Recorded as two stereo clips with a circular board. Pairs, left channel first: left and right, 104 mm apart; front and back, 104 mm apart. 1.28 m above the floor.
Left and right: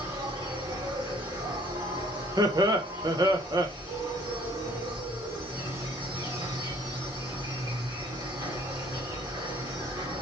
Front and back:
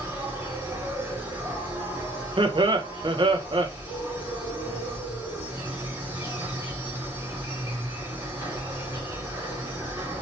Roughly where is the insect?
Behind right.